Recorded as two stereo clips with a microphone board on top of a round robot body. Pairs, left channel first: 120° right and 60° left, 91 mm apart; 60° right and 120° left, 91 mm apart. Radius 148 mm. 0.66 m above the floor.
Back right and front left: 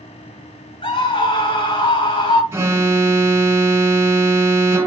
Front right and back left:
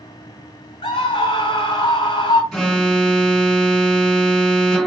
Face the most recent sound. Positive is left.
turn(degrees=25)